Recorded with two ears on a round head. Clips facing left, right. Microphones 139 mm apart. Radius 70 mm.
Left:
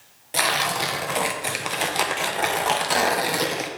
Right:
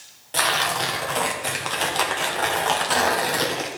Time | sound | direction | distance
0.3 | tearing paper | 10° left (ahead or behind) | 0.8 m